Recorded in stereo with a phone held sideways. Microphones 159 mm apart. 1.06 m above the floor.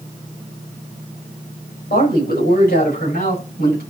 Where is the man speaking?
80° left, 5.5 m; by 3.8 s 85° left, 7.5 m.